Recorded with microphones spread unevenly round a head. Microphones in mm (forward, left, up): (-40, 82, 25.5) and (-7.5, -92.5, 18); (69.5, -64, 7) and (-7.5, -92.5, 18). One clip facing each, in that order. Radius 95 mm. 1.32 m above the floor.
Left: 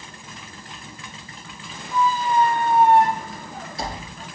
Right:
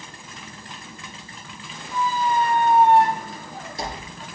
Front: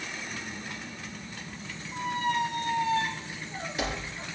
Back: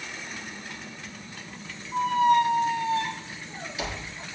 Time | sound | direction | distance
1.9 | a squeak | 15° right | 2.5 m